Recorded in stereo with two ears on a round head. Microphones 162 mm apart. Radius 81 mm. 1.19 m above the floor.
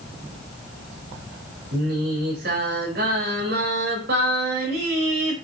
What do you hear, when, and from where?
1.7 s singing: 55° right (ahead or behind), 4.5 m